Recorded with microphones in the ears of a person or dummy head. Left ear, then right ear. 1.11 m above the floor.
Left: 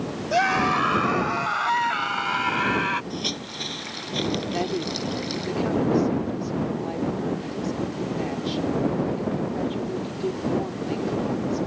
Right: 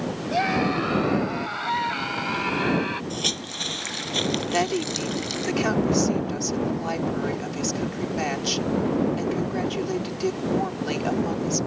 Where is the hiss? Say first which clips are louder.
Right 3 dB; 30° right (ahead or behind).